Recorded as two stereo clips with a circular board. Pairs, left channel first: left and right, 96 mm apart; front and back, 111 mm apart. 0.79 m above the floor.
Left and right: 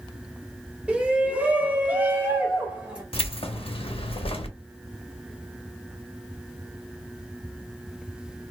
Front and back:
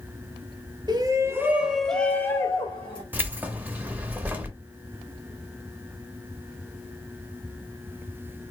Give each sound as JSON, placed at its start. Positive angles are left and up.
{"t": 0.9, "sound": "a shout", "azimuth_deg": -160, "distance_m": 0.8}
{"t": 3.1, "sound": "keys jangling", "azimuth_deg": 105, "distance_m": 0.7}